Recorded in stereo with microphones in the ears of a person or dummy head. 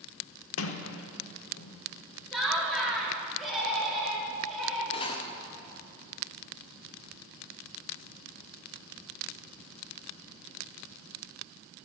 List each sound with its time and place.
0.6 s a sliding door: 70° left (ahead or behind), 1.1 m
2.3 s laughter: centre (ahead or behind), 3.5 m
4.9 s cutlery clinking: 30° left (ahead or behind), 0.8 m